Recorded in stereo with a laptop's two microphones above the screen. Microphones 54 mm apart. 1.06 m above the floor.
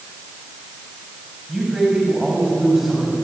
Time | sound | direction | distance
1.5 | a man speaking | 5° right (ahead or behind) | 8 m